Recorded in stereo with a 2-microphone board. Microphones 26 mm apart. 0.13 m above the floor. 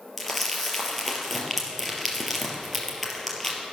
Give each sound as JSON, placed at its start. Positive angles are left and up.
{"t": 0.2, "sound": "crumpling", "side_deg": 10, "distance_m": 3.0}